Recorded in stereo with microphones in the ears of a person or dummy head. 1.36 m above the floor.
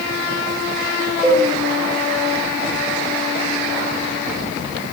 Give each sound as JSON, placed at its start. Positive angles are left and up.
{"t": 1.2, "sound": "a cowbell", "side_deg": -5, "distance_m": 7.5}